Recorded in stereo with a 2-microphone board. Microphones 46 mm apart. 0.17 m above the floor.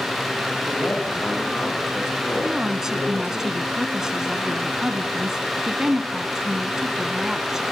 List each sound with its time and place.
0.7 s a man speaking: 55° left (ahead or behind), 9 m
2.4 s a woman speaking: 15° right (ahead or behind), 1.4 m